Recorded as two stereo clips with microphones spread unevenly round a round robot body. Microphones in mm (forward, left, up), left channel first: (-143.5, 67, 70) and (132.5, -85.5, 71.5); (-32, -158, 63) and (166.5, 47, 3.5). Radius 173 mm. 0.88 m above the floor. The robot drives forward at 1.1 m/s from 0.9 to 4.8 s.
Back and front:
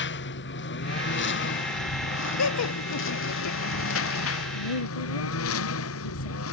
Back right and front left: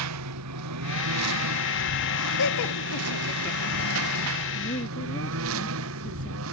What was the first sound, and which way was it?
A lawn mower, 90° left.